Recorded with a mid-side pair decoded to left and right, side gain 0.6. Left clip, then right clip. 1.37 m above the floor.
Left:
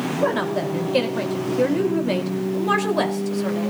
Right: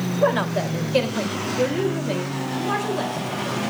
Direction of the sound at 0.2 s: 15° right.